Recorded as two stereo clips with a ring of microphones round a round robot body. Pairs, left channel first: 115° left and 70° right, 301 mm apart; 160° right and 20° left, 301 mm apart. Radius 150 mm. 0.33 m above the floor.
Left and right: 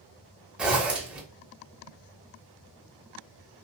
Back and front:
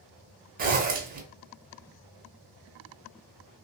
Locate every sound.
0.6 s a zipper: 15° left, 0.7 m